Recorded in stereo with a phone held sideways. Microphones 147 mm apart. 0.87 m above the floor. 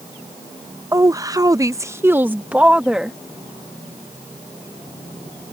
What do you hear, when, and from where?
0.9 s a woman speaking: 20° right (ahead or behind); by 3.2 s 5° right (ahead or behind)